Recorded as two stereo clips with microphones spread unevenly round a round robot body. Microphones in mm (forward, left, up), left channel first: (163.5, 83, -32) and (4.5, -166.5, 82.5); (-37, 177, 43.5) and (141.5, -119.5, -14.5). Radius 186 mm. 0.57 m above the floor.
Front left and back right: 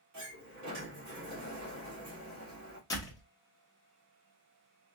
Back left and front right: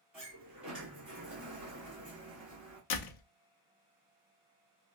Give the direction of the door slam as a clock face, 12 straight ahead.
8 o'clock.